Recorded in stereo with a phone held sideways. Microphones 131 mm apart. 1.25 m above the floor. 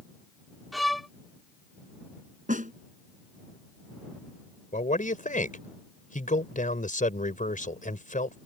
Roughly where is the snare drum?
Right.